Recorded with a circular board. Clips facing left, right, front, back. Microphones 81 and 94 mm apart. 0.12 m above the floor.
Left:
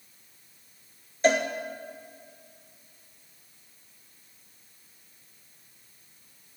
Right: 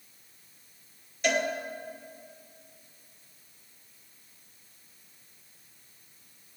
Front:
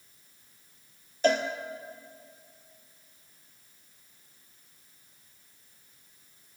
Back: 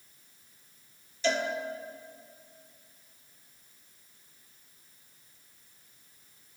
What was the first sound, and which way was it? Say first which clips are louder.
A cowbell: left 5 dB, front 4 dB; 35° left.